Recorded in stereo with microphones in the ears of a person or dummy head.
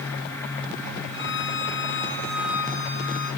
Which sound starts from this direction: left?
A violin, at 1.1 s.